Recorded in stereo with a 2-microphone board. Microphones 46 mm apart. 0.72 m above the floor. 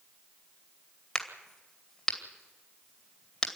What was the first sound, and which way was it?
A crack, 15° left (ahead or behind).